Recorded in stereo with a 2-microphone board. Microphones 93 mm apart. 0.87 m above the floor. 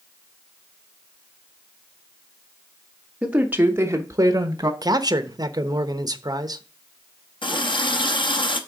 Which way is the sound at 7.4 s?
65° left (ahead or behind).